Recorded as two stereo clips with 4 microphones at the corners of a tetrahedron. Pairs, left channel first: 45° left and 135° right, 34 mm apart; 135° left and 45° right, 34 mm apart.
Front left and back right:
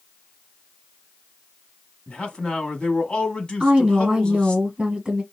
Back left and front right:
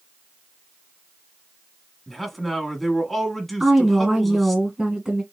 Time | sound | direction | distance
2.1 | a man speaking | 50° left | 1.2 m
3.6 | a woman speaking | 90° right | 1.3 m